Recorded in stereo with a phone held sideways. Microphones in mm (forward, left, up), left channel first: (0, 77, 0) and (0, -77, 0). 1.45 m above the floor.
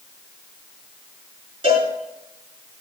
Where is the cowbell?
40° right (ahead or behind), 5.5 m.